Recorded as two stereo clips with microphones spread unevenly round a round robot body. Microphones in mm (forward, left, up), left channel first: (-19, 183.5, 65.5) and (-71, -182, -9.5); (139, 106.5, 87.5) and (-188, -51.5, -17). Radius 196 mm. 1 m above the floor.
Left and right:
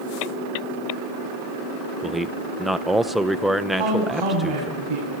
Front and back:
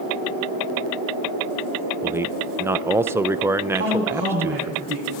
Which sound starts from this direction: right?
A woman speaking, at 3.7 s.